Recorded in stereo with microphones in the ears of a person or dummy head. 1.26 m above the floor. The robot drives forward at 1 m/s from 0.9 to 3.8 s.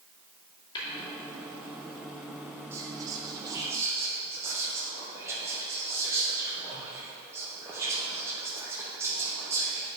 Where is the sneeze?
I don't hear a sneeze.